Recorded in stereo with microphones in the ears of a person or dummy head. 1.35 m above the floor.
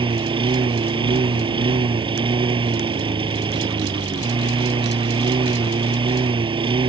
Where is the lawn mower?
20° right (ahead or behind).